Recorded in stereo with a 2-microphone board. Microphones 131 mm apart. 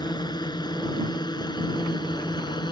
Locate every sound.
0.0 s a drone: 30° left (ahead or behind)